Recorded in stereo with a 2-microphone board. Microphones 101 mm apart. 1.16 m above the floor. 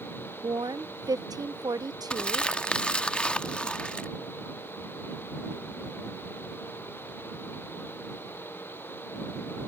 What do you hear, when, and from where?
0.4 s a woman speaking: 40° right (ahead or behind)
2.1 s crumpling: 10° left (ahead or behind)